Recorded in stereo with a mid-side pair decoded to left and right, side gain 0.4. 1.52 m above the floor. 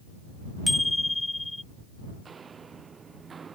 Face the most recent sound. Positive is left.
turn(degrees=-45)